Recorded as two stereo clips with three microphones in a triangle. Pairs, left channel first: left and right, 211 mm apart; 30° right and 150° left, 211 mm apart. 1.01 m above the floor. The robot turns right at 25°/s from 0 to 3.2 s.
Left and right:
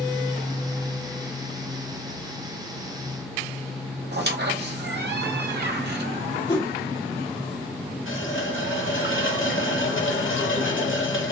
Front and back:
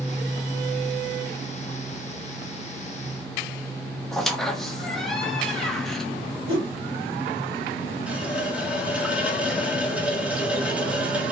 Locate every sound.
4.1 s a squeak: 120° right, 0.7 m
6.5 s a whoosh: 160° left, 2.0 m
8.1 s a running tap: 65° left, 0.7 m